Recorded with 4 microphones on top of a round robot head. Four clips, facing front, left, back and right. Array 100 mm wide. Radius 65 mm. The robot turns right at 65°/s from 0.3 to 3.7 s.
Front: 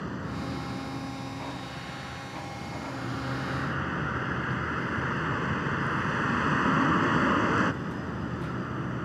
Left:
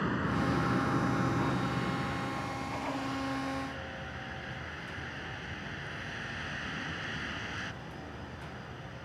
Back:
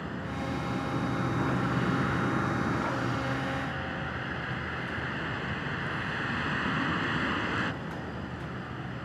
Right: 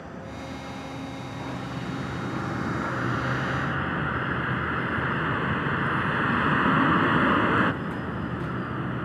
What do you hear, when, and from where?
0.0 s a vehicle: 75° left; by 9.1 s 65° right